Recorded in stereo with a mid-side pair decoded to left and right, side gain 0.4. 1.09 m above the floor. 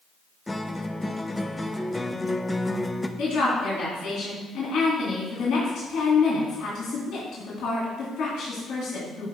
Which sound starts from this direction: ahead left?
A woman speaking, at 3.2 s.